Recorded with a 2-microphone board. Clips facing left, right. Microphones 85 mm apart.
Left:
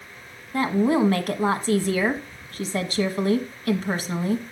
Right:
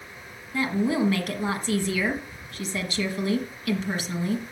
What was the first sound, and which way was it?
A woman speaking, 45° left (ahead or behind).